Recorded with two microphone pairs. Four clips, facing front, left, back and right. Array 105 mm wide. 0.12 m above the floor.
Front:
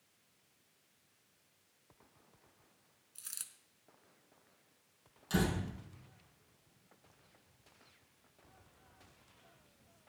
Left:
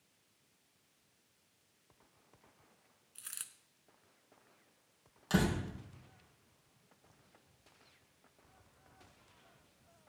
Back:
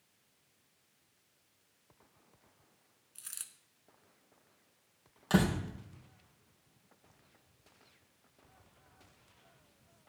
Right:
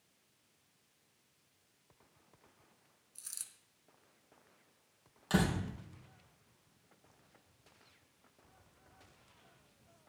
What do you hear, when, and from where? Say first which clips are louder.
3.1 s a dropped coin: left 6 dB, back 2 dB; 105° left, 0.8 m
5.3 s a door slam: even, back 5 dB; 170° right, 3 m